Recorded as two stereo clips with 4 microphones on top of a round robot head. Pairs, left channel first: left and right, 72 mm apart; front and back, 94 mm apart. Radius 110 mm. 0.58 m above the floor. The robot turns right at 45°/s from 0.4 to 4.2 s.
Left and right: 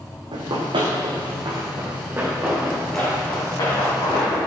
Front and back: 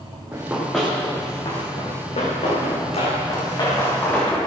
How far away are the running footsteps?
About 2 m.